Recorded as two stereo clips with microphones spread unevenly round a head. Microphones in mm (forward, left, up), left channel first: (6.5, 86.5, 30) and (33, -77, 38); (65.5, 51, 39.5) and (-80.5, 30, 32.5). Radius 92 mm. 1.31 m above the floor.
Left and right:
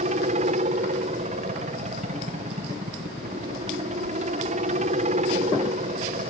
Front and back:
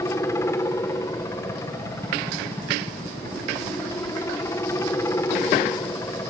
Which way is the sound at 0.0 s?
60° right.